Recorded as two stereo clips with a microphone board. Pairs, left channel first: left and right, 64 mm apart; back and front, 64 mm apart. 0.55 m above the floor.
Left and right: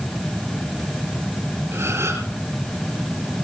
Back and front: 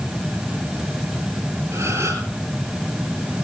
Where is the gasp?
40° right, 8 m.